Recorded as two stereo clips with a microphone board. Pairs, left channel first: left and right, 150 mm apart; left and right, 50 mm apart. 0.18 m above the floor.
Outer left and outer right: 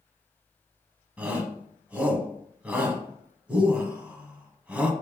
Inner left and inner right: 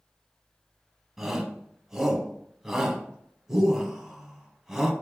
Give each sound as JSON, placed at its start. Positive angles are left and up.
{"t": 1.2, "sound": "a shout", "side_deg": -10, "distance_m": 1.0}